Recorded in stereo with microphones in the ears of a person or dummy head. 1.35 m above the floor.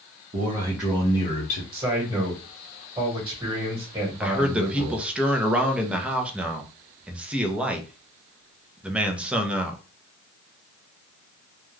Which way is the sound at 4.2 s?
10° right (ahead or behind).